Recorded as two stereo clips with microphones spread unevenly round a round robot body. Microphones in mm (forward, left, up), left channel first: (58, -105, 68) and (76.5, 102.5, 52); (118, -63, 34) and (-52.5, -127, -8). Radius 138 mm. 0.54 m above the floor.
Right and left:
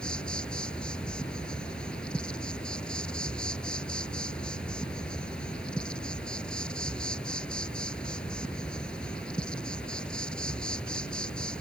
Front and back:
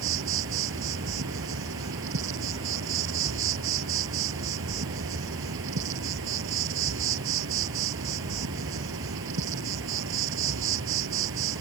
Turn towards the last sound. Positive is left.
turn(degrees=180)